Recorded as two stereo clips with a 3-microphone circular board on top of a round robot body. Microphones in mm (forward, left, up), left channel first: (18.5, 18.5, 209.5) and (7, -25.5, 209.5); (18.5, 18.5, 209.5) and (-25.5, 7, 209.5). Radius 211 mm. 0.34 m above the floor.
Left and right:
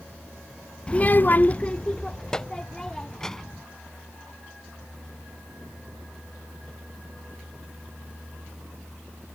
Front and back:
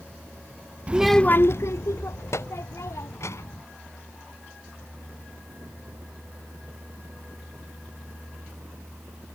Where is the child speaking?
140° left; by 3.6 s 5° right.